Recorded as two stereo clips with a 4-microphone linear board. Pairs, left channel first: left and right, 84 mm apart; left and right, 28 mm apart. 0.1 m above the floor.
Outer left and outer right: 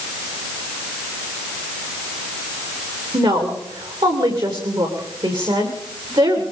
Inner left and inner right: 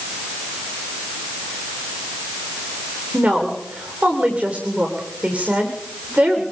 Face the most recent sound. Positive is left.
turn(degrees=-70)  # may be behind; listen again after turning